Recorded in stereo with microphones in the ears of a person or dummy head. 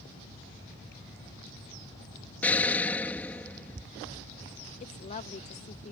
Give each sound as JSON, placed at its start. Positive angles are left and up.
{"t": 2.4, "sound": "an explosion", "side_deg": 10}
{"t": 4.8, "sound": "a woman speaking", "side_deg": 35}